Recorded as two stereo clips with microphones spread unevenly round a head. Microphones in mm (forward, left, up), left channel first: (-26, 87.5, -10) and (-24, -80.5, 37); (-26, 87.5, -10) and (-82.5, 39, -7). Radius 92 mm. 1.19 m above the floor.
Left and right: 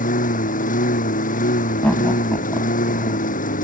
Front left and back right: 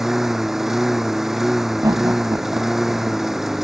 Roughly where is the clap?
I don't hear a clap.